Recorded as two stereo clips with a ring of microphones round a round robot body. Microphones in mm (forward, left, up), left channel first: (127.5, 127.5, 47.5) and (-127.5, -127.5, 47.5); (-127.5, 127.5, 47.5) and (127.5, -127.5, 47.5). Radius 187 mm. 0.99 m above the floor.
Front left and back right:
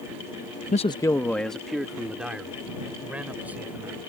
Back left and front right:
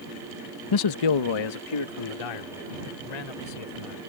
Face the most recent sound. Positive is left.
turn(degrees=140)